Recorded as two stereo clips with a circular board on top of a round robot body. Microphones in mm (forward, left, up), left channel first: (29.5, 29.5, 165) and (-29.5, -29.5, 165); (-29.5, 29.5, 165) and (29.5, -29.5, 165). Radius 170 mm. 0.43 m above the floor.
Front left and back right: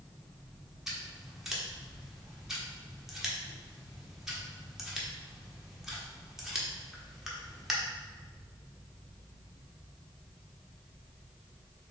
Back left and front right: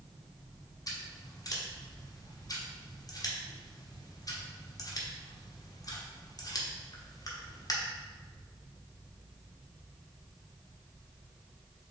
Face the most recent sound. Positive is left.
turn(degrees=140)